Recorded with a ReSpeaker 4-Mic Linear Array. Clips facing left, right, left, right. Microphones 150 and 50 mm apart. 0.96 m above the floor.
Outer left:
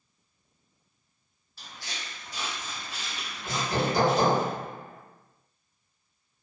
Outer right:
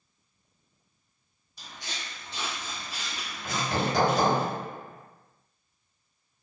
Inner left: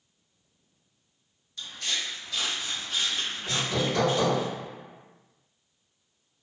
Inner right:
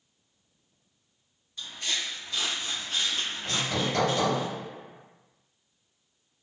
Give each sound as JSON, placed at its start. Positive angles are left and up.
{"t": 1.6, "sound": "footsteps", "side_deg": -15, "distance_m": 1.8}
{"t": 3.5, "sound": "hammering", "side_deg": -60, "distance_m": 1.4}